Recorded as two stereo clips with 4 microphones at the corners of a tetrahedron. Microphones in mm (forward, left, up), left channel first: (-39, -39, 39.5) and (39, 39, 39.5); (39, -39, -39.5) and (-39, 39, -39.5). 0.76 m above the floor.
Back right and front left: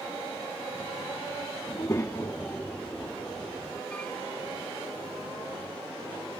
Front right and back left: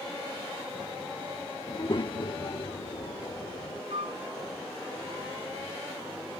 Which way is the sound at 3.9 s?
150° left.